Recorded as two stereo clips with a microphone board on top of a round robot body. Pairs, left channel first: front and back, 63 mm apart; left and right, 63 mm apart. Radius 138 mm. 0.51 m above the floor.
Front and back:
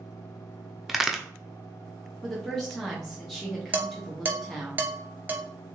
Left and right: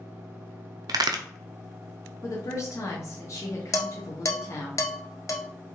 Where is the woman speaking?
85° left, 1.0 m.